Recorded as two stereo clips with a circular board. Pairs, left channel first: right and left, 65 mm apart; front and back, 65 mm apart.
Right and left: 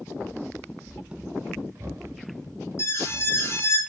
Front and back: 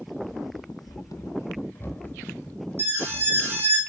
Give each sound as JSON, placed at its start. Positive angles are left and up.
{"t": 0.2, "sound": "running footsteps", "azimuth_deg": -45, "distance_m": 1.2}
{"t": 2.8, "sound": "an alarm", "azimuth_deg": -130, "distance_m": 3.0}